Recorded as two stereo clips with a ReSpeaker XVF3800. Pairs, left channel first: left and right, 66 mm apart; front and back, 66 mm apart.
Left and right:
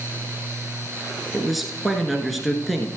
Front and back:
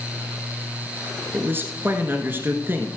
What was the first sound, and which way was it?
A man speaking, straight behind.